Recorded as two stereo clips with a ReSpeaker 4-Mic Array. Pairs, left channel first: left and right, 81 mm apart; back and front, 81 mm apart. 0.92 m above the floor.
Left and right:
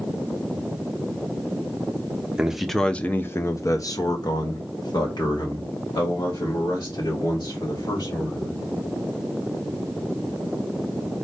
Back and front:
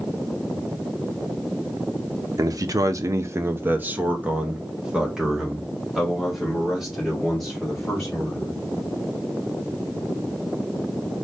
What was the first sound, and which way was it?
A man speaking, 15° right.